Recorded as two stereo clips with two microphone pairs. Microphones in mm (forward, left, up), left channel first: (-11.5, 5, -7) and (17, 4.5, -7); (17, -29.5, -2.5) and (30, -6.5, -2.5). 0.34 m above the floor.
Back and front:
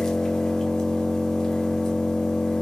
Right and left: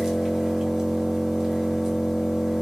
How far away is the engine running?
About 0.8 m.